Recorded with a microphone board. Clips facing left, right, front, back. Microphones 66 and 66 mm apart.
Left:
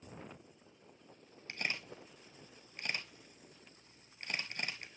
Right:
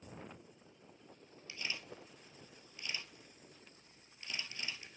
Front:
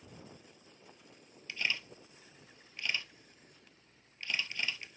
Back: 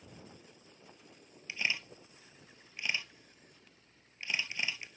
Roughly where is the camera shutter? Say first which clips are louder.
Left 4 dB, back 1 dB; left.